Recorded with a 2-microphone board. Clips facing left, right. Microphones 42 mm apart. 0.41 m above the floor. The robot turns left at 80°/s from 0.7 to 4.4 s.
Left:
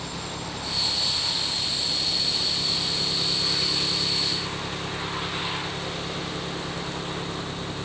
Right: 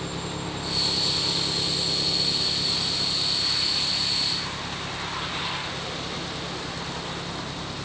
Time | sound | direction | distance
0.0 | an engine running | 30° right | ?